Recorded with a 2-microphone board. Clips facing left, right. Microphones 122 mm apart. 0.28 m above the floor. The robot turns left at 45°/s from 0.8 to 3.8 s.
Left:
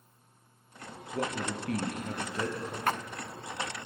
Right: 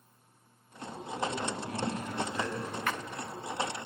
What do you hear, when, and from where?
1.1 s a man speaking: 95° left, 6 m; by 2.8 s 25° left, 6 m
2.9 s a splash: 40° left (ahead or behind), 0.6 m; by 3.0 s 45° left (ahead or behind), 0.6 m